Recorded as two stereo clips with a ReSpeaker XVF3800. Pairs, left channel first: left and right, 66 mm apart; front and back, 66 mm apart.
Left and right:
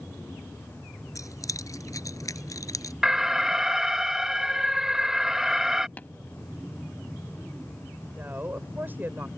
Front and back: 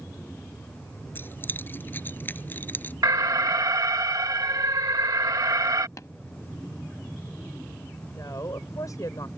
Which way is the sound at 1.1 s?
60° left.